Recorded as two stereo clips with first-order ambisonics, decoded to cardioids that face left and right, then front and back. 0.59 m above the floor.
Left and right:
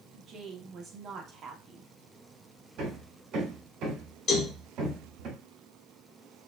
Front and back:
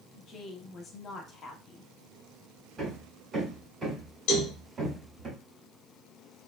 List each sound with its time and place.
0.1 s a woman speaking: 50° right, 0.8 m
2.8 s hammering: 115° right, 1.1 m
4.3 s a cowbell: 30° left, 0.9 m